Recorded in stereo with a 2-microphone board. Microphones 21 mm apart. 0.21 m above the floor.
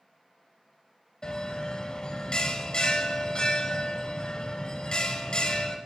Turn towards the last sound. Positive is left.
turn(degrees=45)  # may be behind; listen again after turning